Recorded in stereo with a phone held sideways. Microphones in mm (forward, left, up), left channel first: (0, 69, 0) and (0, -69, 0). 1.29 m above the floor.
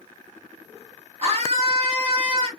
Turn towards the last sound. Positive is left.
turn(degrees=-45)  # may be behind; listen again after turning